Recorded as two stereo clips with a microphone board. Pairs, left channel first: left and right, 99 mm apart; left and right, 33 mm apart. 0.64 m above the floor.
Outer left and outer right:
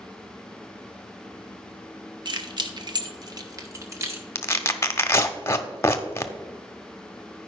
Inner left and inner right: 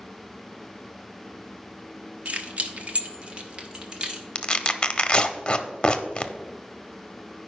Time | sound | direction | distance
2.2 | keys jangling | 45° right (ahead or behind) | 0.9 m
4.3 | tearing paper | 25° left (ahead or behind) | 0.7 m